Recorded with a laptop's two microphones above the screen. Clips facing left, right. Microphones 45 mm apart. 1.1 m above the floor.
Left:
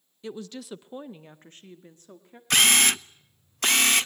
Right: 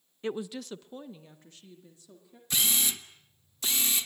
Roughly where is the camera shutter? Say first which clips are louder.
Left 10 dB; left.